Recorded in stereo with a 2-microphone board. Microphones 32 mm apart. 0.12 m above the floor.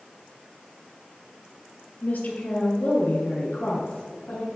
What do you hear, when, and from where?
2.0 s a woman speaking: 55° left (ahead or behind), 2 m; by 4.5 s 70° left (ahead or behind), 4 m